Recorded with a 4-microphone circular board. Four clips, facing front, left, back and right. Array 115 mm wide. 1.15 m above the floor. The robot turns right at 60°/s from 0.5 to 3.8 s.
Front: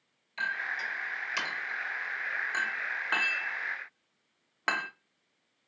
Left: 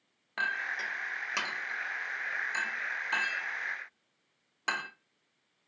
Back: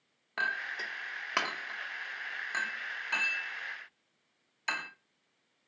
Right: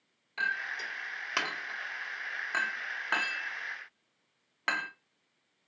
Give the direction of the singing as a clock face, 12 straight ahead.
I don't hear singing.